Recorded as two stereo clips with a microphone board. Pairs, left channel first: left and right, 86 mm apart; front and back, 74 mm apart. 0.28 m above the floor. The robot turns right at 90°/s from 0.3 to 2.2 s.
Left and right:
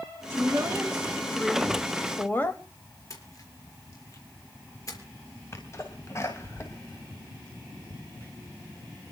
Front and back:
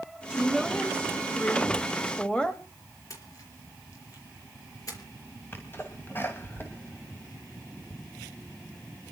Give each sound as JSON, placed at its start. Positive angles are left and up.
{"t": 0.3, "sound": "a woman speaking", "azimuth_deg": -110, "distance_m": 1.6}
{"t": 3.1, "sound": "a splash", "azimuth_deg": 40, "distance_m": 4.5}
{"t": 5.5, "sound": "a sneeze", "azimuth_deg": 50, "distance_m": 2.0}